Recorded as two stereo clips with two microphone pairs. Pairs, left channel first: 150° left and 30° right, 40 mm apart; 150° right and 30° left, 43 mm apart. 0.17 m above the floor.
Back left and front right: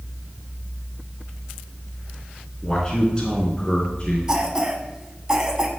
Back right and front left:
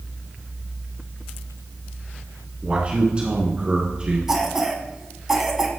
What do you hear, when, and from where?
2.6 s a man speaking: 75° left, 1.4 m; by 4.2 s 95° left, 2.0 m
4.3 s a cough: 15° right, 1.2 m